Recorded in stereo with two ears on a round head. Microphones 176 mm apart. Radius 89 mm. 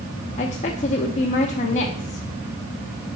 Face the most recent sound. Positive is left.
turn(degrees=35)  # may be behind; listen again after turning